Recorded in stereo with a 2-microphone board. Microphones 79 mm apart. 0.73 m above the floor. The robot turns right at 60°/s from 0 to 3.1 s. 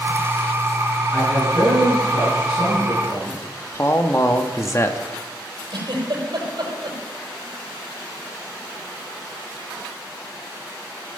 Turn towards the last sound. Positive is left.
turn(degrees=-60)  # may be behind; listen again after turning